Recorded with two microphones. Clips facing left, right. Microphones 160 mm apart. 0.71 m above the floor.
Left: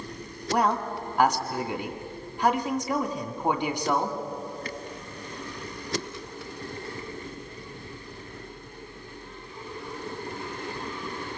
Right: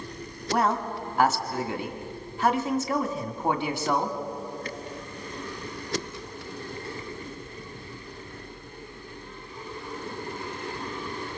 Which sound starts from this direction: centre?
A man speaking, at 0.5 s.